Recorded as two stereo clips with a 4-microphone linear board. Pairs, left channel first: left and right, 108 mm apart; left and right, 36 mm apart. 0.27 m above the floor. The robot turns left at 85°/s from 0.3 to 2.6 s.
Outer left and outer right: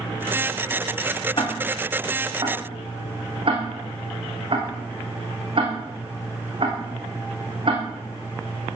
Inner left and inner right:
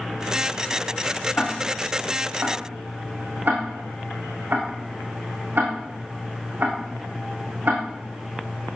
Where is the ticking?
50° left (ahead or behind), 4 m; by 7.8 s 55° right (ahead or behind), 4 m.